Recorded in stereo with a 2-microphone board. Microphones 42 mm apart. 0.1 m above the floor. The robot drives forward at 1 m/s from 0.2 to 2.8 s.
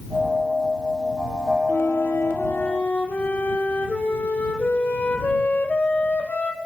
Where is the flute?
65° left (ahead or behind), 0.9 m; by 6.6 s 40° left (ahead or behind), 1.2 m.